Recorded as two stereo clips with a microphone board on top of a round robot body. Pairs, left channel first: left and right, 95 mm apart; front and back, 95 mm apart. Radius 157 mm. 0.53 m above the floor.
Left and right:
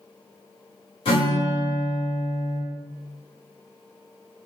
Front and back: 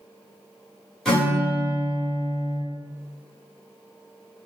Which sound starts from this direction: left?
A guitar, at 1.1 s.